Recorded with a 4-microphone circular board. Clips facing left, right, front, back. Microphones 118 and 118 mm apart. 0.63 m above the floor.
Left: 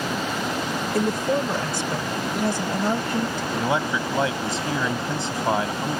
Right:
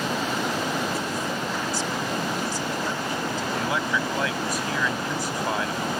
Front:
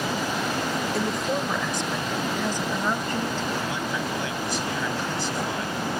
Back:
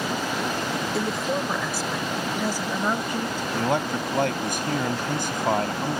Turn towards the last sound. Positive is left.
turn(degrees=150)